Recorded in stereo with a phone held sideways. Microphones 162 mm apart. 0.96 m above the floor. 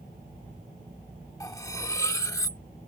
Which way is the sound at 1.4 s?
20° left (ahead or behind).